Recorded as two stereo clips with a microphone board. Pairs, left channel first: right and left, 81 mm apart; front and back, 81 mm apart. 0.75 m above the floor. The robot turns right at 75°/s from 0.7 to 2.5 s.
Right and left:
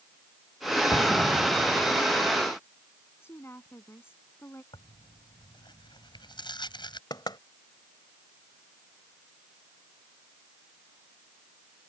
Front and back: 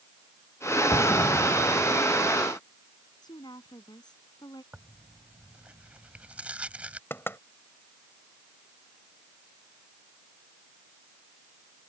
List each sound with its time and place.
0.9 s an explosion: 35° right; by 2.0 s 45° left
3.2 s a woman speaking: 30° right
4.7 s tearing paper: 105° right
7.1 s knocking: 60° right